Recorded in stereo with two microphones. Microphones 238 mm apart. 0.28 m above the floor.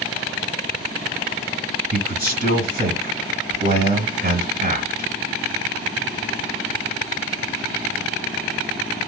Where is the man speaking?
40° right (ahead or behind), 1.4 m.